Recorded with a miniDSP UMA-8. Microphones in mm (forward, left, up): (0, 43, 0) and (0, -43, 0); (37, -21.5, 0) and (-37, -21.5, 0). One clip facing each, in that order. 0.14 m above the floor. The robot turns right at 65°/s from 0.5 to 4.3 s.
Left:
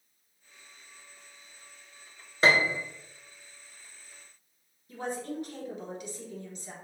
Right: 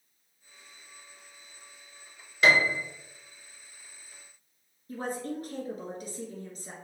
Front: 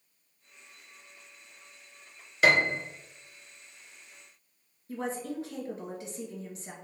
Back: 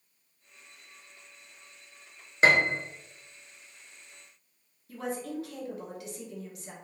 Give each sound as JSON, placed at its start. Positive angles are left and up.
{"t": 2.4, "sound": "a piano", "azimuth_deg": 135, "distance_m": 0.9}
{"t": 4.9, "sound": "a woman speaking", "azimuth_deg": -55, "distance_m": 1.7}